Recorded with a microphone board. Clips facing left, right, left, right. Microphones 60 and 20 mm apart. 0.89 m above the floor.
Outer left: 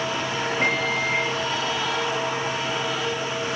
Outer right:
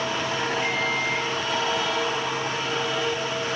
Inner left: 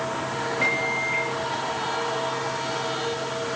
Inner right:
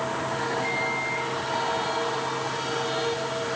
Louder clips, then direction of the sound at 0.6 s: Outer left 2 dB, inner left 3 dB; 65° left (ahead or behind).